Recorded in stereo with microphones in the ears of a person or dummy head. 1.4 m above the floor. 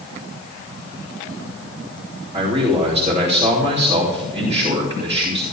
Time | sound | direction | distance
2.3 | a man speaking | 35° right (ahead or behind) | 3 m